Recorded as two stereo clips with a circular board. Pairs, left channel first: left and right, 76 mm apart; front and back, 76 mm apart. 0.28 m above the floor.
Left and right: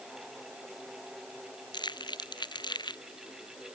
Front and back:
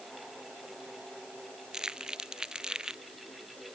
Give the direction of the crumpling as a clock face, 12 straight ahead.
9 o'clock.